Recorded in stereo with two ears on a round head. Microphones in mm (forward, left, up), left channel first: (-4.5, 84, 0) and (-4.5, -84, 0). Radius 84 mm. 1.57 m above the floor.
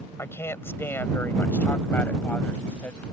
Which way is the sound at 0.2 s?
15° left (ahead or behind).